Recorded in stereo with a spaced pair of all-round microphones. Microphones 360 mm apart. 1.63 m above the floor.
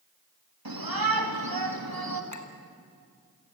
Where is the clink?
50° left (ahead or behind), 1.7 m.